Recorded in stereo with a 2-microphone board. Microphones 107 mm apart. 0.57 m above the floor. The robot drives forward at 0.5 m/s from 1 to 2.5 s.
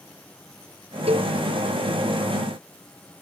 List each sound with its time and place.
1.1 s a cowbell: 70° right (ahead or behind)